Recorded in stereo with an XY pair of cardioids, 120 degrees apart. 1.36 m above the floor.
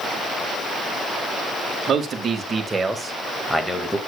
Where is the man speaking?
45° right, 2 m; by 4.0 s 20° left, 2 m.